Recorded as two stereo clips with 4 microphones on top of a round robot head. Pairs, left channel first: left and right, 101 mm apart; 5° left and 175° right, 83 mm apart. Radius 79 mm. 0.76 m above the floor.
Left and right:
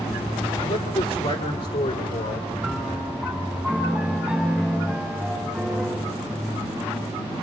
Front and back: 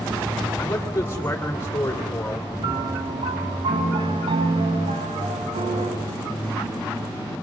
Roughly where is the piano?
Behind.